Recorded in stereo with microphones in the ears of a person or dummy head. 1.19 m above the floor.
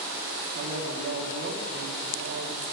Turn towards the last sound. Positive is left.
turn(degrees=-60)  # may be behind; listen again after turning